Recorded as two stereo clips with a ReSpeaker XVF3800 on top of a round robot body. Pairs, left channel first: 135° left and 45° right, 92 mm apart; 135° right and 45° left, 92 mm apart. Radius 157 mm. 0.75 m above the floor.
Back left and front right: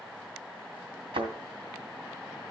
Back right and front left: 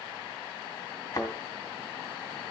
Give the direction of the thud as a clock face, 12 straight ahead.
2 o'clock.